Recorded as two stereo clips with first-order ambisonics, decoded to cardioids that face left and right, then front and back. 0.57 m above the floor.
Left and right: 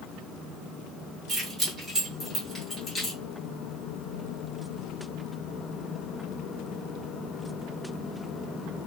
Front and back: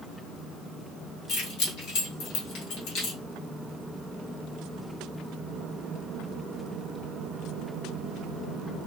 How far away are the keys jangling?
About 1.6 m.